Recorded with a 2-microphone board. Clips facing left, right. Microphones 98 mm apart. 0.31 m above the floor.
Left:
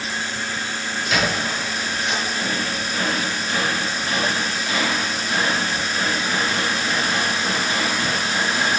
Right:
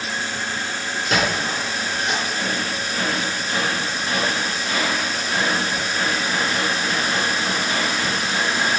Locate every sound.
1.1 s a squeak: 40° right (ahead or behind), 3.5 m